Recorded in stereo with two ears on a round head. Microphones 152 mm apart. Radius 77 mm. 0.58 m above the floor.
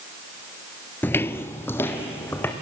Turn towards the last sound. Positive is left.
turn(degrees=15)  # may be behind; listen again after turning